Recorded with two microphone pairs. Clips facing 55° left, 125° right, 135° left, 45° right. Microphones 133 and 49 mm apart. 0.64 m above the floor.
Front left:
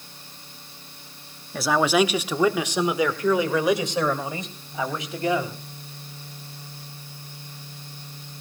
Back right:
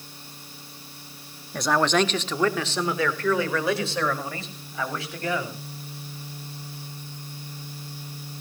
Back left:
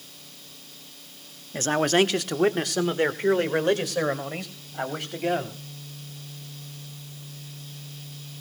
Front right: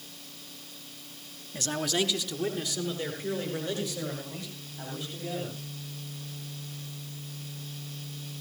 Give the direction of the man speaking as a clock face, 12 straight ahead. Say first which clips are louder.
Front left 2 dB, back left 8 dB; 7 o'clock.